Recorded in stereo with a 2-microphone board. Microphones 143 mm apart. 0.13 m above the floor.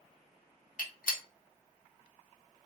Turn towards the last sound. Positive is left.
turn(degrees=80)